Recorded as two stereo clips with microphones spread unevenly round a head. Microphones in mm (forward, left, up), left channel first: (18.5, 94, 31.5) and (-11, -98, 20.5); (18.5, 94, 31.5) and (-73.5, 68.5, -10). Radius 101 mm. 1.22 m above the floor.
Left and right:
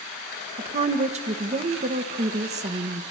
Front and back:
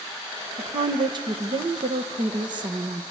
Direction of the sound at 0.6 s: 150° right.